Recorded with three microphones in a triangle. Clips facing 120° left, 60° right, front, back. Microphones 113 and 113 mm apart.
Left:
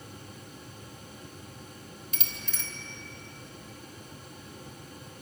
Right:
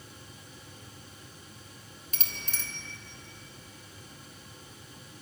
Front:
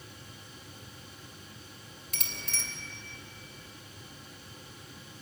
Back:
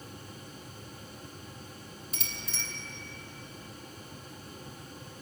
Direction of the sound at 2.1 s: 10° right.